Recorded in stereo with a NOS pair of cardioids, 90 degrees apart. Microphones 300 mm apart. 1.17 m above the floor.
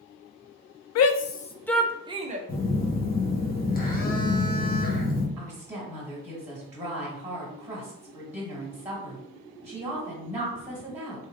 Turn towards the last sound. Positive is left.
turn(degrees=-10)